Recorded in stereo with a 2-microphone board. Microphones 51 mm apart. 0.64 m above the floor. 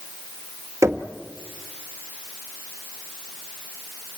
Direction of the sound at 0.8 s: 70° right (ahead or behind).